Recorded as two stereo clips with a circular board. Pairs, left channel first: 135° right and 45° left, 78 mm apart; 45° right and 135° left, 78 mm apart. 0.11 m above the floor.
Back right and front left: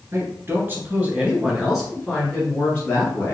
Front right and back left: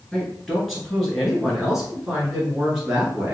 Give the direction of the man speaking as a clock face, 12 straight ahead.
11 o'clock.